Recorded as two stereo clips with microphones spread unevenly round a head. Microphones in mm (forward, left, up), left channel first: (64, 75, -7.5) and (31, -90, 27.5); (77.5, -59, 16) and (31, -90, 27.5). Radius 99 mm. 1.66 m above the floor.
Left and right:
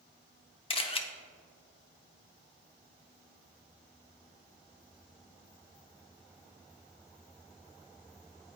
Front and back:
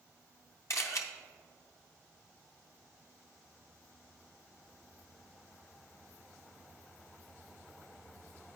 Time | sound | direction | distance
0.7 | a camera shutter | 20° left | 0.6 m